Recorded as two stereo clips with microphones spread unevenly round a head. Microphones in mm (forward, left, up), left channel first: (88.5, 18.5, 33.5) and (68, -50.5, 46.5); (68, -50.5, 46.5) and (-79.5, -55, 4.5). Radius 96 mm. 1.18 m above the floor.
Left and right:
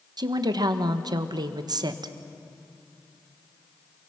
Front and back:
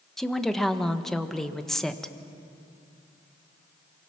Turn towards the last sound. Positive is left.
turn(degrees=-90)